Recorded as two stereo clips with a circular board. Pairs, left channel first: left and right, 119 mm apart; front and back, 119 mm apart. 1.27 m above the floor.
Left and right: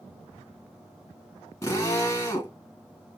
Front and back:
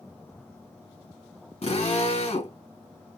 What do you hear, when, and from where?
1.6 s a drill: 25° left, 2.5 m